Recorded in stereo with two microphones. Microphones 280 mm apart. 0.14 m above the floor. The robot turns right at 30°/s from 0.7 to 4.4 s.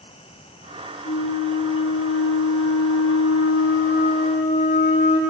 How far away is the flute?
About 2 m.